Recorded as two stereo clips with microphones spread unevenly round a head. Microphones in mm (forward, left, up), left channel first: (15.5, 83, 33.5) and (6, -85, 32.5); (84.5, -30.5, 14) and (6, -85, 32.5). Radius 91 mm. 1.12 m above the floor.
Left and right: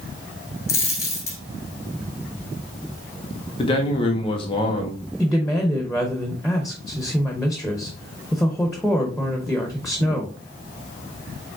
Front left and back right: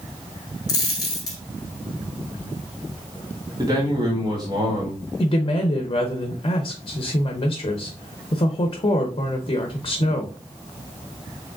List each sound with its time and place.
0.7 s a dropped coin: 40° left, 1.1 m
3.6 s a man speaking: 145° left, 1.2 m
5.2 s a woman speaking: 5° right, 0.8 m